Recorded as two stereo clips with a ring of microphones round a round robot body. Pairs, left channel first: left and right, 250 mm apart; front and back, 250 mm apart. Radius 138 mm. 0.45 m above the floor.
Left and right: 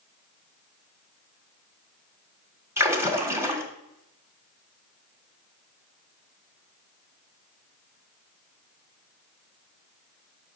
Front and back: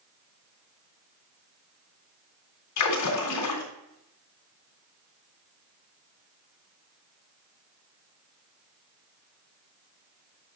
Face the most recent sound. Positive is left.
turn(degrees=-10)